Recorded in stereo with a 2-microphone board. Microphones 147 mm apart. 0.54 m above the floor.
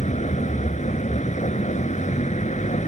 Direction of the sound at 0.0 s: 55° left (ahead or behind).